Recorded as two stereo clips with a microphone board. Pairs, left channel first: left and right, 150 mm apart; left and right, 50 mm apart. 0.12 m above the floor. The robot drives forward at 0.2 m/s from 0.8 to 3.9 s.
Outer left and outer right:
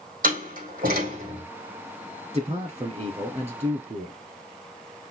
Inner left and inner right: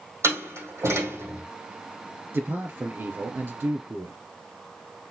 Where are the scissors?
No scissors in this recording.